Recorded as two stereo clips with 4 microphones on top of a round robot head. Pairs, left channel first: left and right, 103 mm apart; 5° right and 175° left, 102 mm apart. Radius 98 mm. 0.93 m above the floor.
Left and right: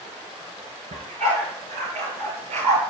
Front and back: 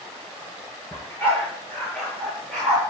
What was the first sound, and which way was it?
A dog barking, 75° right.